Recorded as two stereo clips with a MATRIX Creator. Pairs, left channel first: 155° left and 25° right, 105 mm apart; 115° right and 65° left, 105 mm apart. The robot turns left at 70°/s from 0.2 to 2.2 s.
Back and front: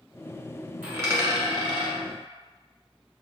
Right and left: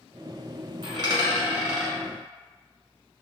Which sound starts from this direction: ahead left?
A dropped coin, at 0.8 s.